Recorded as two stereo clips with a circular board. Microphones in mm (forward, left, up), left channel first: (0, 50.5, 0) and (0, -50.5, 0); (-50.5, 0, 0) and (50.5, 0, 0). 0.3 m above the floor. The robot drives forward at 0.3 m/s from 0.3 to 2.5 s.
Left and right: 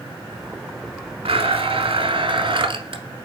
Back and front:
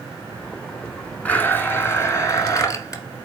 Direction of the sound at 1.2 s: 105° right.